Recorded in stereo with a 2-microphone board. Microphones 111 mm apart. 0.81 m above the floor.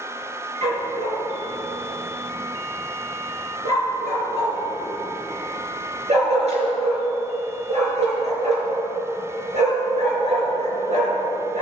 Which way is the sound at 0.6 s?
85° right.